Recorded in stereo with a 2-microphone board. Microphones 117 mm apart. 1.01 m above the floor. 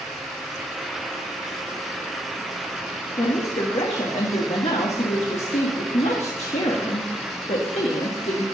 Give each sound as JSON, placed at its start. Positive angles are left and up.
{"t": 3.2, "sound": "a woman speaking", "side_deg": 65, "distance_m": 1.4}